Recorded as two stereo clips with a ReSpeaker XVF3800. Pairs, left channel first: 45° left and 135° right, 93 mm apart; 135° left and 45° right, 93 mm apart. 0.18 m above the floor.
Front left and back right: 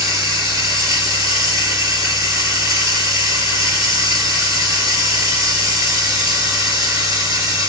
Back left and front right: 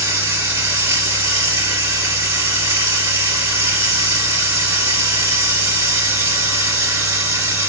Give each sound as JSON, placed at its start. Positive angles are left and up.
{"t": 0.0, "sound": "running water", "azimuth_deg": -95, "distance_m": 1.7}